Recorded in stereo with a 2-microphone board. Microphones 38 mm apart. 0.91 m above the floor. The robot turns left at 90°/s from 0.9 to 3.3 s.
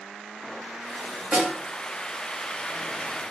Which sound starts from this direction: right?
A snare drum, at 1.3 s.